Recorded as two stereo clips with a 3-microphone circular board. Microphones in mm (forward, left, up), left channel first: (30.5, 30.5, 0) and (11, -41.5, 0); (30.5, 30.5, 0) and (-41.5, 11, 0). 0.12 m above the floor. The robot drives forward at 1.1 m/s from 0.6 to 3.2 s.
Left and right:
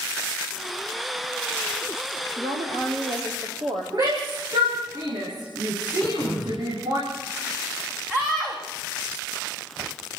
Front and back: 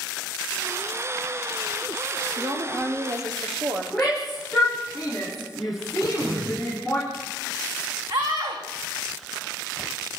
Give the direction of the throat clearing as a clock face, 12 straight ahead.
7 o'clock.